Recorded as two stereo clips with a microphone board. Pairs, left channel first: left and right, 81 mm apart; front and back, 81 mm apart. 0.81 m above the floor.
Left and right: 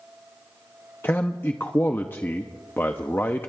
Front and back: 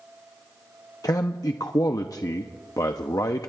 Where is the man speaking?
30° left, 0.7 m.